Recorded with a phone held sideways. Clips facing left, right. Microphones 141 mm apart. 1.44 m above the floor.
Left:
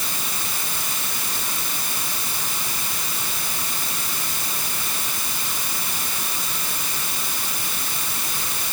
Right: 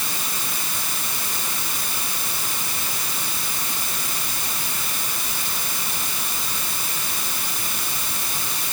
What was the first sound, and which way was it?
Only background noise.